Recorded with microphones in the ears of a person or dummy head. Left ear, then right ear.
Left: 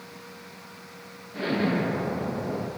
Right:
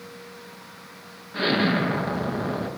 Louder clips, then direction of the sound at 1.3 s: Right 4 dB; 30° right (ahead or behind).